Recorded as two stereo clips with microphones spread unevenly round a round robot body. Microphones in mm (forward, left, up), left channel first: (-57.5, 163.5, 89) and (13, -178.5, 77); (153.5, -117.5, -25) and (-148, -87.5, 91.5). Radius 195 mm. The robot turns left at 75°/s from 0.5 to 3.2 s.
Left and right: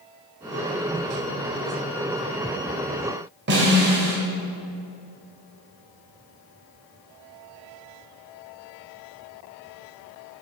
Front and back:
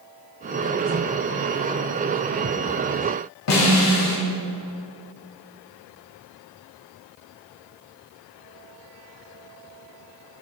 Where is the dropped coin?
I don't hear a dropped coin.